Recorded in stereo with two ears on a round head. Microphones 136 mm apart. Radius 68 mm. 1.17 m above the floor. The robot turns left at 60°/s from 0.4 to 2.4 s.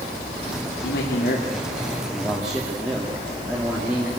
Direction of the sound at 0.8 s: 90° left.